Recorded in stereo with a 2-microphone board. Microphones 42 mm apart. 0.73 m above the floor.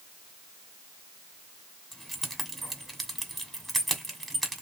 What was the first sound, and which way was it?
Keys jangling, 5° left (ahead or behind).